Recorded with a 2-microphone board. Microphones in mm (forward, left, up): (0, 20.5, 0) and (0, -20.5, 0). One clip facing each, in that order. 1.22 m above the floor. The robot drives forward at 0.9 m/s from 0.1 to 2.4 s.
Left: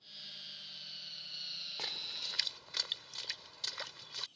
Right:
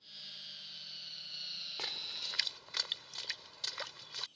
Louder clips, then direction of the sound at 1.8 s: Even; 20° right (ahead or behind).